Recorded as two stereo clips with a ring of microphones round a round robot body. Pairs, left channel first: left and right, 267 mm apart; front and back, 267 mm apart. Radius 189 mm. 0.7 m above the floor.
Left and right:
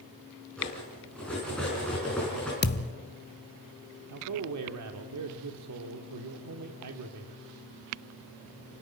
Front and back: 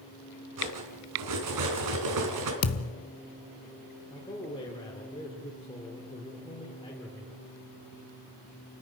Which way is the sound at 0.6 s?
175° left.